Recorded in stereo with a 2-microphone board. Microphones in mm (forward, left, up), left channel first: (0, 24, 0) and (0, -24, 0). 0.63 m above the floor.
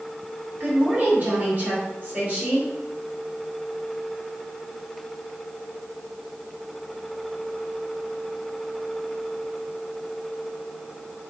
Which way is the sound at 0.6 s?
35° right (ahead or behind).